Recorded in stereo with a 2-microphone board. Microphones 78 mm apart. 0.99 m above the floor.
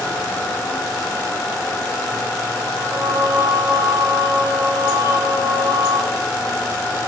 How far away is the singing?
About 3 m.